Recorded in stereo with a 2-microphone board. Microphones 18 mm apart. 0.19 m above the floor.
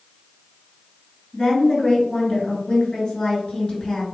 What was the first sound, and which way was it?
A woman speaking, 45° left (ahead or behind).